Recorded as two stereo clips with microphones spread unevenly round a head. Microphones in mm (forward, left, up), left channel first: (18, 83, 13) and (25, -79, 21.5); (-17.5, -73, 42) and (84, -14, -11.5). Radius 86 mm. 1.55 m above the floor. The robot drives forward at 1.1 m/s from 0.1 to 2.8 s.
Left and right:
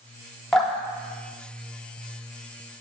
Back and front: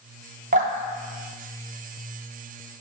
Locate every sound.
0.5 s dripping: 5° left, 1.9 m; by 2.2 s 125° left, 0.8 m